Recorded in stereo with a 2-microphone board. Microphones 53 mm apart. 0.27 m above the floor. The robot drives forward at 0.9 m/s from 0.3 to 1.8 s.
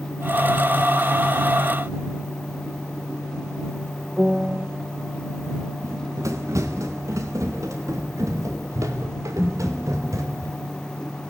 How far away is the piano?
About 0.9 m.